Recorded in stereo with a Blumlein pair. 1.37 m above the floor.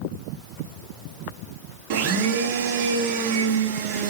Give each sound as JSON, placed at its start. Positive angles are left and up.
{"t": 1.9, "sound": "a blender", "azimuth_deg": -45, "distance_m": 1.8}